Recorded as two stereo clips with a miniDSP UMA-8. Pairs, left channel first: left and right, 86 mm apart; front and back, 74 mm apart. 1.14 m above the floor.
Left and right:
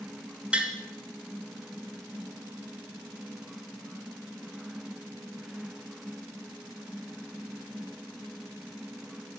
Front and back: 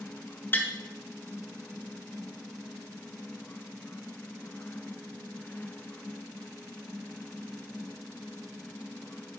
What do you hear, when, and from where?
0.5 s tapping: 30° right, 0.9 m